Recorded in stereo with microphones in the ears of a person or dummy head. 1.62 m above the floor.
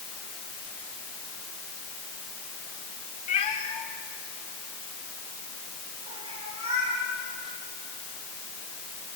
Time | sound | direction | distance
3.3 | a cat meowing | 25° left (ahead or behind) | 1.5 m